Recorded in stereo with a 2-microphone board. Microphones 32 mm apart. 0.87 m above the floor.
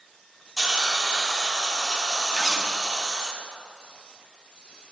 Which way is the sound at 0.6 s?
20° right (ahead or behind).